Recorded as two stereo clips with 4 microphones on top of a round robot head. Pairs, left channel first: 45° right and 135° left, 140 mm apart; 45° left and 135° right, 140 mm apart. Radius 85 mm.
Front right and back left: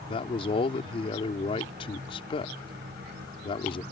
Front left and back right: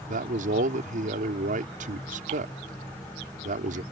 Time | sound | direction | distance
0.1 | a man speaking | 100° right | ?